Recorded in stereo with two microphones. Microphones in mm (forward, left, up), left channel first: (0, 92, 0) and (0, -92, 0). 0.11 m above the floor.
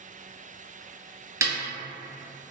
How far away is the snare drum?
About 0.9 m.